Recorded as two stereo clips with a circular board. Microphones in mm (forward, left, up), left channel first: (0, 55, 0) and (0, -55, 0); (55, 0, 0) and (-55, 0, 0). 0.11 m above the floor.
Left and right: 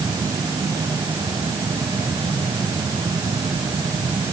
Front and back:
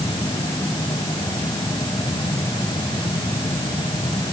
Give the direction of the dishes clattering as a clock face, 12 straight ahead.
I don't hear dishes clattering.